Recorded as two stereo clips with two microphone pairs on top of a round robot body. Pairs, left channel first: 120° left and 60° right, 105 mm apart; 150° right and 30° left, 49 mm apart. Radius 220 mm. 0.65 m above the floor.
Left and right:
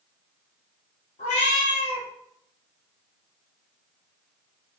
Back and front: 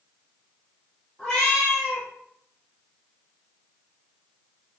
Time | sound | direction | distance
1.2 | a cat meowing | 125° left | 1.1 m